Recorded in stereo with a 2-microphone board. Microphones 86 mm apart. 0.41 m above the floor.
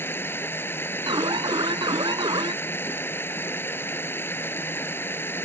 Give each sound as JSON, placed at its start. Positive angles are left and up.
{"t": 0.0, "sound": "running water", "side_deg": 25}
{"t": 1.1, "sound": "an alarm", "side_deg": -65}